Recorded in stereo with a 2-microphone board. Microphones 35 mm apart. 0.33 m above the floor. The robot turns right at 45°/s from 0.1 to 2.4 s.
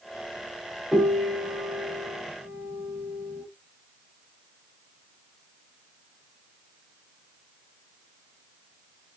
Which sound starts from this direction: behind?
A piano, at 0.9 s.